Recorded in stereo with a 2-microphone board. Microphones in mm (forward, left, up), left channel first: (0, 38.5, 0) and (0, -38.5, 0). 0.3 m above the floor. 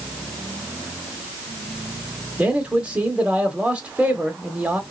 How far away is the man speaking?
About 1.0 m.